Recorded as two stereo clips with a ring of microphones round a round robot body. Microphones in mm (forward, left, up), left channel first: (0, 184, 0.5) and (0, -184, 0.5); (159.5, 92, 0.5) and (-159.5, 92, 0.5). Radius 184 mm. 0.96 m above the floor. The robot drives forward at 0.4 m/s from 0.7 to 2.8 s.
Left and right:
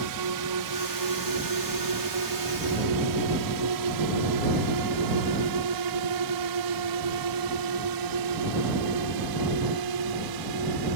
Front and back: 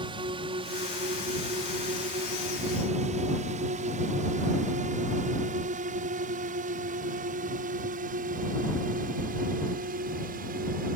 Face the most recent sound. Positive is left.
turn(degrees=-115)